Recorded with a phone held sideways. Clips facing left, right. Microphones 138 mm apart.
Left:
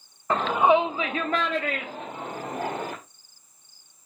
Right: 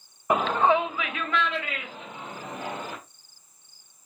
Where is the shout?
15° right (ahead or behind), 0.5 m; by 2.9 s 55° left (ahead or behind), 2.5 m.